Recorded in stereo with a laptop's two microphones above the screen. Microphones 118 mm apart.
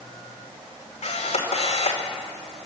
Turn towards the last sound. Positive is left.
turn(degrees=65)  # may be behind; listen again after turning